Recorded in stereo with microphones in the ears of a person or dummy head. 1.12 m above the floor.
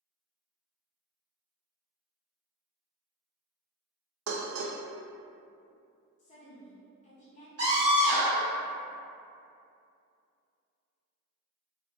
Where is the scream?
70° right (ahead or behind), 1.1 m.